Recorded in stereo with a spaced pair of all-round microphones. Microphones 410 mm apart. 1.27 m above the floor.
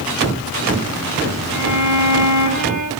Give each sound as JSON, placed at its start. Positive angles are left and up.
{"t": 1.5, "sound": "a violin", "side_deg": 45, "distance_m": 2.0}